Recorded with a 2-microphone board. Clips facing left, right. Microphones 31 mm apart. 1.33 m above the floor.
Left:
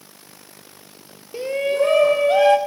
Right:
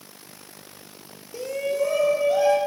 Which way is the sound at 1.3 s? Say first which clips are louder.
Left 5 dB; 30° left (ahead or behind).